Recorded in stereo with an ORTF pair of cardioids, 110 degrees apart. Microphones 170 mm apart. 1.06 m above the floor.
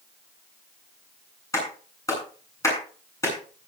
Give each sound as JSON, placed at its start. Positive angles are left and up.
{"t": 1.5, "sound": "a clap", "azimuth_deg": 15, "distance_m": 9.5}